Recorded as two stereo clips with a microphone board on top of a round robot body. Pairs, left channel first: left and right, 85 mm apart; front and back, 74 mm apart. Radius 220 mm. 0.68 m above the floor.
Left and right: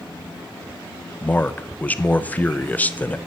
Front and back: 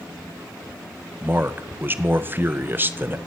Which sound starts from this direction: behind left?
A man speaking, at 1.2 s.